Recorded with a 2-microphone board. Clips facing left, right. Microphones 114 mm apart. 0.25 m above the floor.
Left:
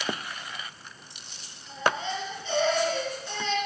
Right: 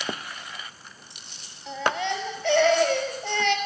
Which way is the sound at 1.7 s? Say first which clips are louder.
Right 2 dB; 65° right (ahead or behind).